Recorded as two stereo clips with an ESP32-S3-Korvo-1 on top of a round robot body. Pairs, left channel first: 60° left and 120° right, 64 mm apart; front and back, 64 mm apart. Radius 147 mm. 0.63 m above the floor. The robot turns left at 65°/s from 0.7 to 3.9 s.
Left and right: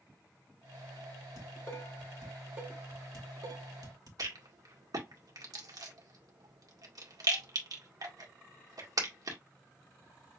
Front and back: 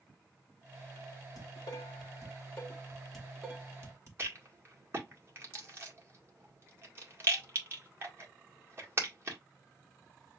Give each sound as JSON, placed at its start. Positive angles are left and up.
{"t": 1.4, "sound": "dishes clattering", "azimuth_deg": 30, "distance_m": 2.0}
{"t": 4.2, "sound": "a rattle", "azimuth_deg": -130, "distance_m": 1.9}